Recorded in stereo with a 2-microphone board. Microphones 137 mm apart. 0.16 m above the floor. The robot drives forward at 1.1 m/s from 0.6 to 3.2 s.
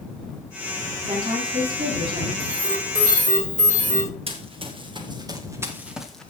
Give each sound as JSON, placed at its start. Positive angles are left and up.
{"t": 1.0, "sound": "a woman speaking", "side_deg": -35, "distance_m": 8.5}
{"t": 2.4, "sound": "an alarm", "side_deg": -70, "distance_m": 8.0}
{"t": 4.3, "sound": "running footsteps", "side_deg": -45, "distance_m": 3.5}